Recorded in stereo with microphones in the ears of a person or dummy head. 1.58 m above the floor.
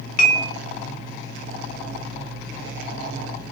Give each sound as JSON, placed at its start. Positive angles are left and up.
{"t": 0.2, "sound": "dishes clattering", "side_deg": 50, "distance_m": 1.7}